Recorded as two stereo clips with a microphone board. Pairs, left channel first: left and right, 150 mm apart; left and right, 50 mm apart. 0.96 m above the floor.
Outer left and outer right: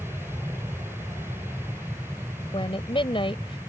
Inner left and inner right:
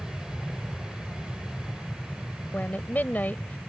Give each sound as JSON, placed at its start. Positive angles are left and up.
{"t": 0.0, "sound": "an aircraft", "side_deg": -15}
{"t": 2.5, "sound": "a woman speaking", "side_deg": 35}